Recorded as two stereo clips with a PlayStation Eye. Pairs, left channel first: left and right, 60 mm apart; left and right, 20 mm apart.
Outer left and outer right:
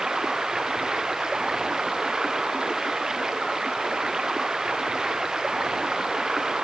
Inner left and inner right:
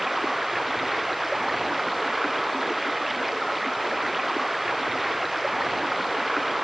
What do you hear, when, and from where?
0.0 s running water: 10° right (ahead or behind)